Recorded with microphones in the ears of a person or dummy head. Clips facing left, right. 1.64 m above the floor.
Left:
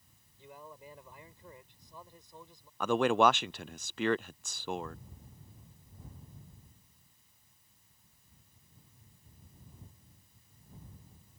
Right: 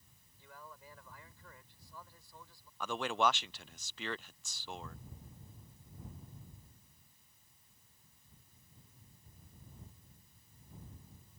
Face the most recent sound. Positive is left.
turn(degrees=40)  # may be behind; listen again after turning